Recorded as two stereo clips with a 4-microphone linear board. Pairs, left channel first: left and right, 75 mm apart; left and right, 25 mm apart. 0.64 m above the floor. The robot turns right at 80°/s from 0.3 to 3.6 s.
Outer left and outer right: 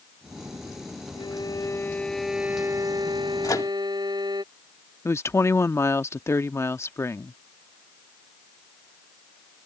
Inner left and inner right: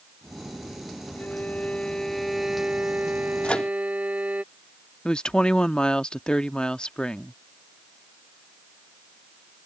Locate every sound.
1.1 s a violin: 95° left; by 4.4 s 70° right
3.4 s a microwave: 50° left (ahead or behind); by 3.7 s 55° left (ahead or behind)
5.0 s a woman speaking: 40° left (ahead or behind)